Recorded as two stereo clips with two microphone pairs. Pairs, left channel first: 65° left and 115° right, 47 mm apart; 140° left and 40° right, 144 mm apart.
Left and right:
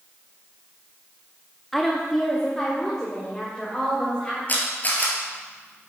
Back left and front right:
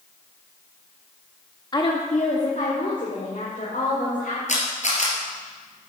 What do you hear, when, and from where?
1.7 s a woman speaking: 150° left, 0.7 m; by 4.4 s 140° left, 3 m
4.5 s a camera shutter: 115° left, 2.5 m